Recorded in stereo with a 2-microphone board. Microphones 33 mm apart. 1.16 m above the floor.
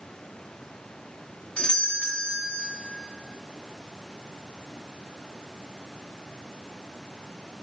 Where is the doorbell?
35° left (ahead or behind), 3.5 m.